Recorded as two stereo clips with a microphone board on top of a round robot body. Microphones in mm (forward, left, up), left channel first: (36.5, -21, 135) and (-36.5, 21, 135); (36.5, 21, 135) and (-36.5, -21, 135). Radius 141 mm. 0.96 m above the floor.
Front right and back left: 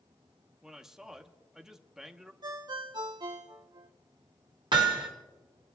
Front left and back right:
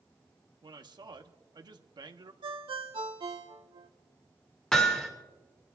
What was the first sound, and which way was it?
A man speaking, 125° right.